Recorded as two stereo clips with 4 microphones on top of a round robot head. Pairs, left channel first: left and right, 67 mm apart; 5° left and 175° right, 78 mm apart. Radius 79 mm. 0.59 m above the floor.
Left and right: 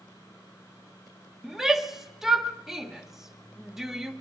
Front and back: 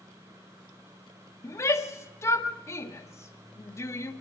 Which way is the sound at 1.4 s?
10° right.